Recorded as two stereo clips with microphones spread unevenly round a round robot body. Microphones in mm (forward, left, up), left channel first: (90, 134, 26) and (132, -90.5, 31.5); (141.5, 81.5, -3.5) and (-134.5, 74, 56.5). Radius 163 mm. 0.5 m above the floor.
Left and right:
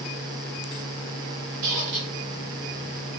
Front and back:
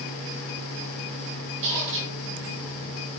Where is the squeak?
120° right, 0.6 m.